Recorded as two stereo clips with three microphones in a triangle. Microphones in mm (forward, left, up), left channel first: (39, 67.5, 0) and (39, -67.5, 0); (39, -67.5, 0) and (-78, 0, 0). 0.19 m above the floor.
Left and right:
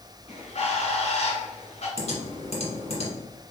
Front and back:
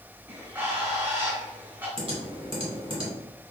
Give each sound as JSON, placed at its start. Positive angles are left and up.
{"t": 0.3, "sound": "a bird", "azimuth_deg": 85, "distance_m": 2.0}
{"t": 2.0, "sound": "typing on a keyboard", "azimuth_deg": 110, "distance_m": 1.6}